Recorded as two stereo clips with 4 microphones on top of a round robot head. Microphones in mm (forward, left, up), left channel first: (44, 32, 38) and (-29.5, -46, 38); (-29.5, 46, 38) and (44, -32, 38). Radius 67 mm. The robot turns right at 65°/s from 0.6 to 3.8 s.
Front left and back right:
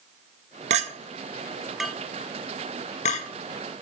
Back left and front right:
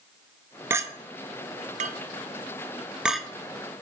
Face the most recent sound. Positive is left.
turn(degrees=85)